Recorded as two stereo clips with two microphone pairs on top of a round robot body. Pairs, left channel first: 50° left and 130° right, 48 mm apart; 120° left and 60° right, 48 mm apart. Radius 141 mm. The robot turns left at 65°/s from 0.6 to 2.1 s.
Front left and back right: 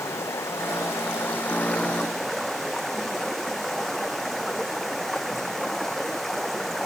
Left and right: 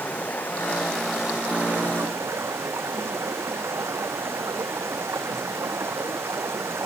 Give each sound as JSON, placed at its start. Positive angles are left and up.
{"t": 0.0, "sound": "running water", "azimuth_deg": 65}